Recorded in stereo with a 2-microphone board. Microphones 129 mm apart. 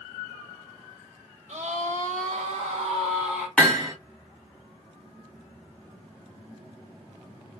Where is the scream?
65° right (ahead or behind), 1.0 m; by 3.5 s 70° right (ahead or behind), 2 m.